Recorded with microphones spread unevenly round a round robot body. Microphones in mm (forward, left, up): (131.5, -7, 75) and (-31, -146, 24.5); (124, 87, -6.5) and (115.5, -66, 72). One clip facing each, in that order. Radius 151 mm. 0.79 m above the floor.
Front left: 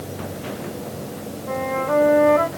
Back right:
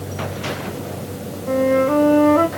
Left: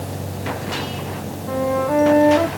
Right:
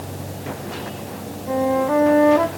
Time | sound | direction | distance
1.5 | a flute | straight behind | 1.7 m